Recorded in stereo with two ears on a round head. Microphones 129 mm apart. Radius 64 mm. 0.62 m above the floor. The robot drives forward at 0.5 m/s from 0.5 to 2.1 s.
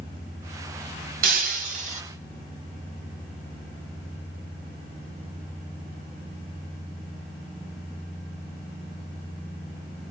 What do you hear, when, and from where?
1.2 s breaking glass: 65° right (ahead or behind), 1.3 m; by 2.0 s 50° right (ahead or behind), 1.5 m